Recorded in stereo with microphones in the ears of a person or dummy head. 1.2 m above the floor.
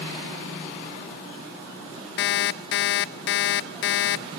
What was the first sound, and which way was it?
An alarm clock, 55° left (ahead or behind).